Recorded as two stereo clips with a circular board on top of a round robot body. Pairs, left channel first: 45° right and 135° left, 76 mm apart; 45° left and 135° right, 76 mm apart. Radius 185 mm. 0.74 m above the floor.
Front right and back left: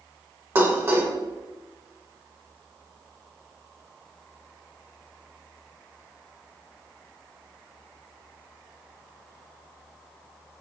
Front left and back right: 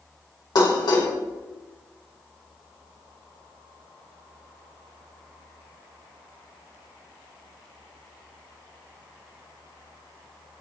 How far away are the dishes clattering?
About 2.5 m.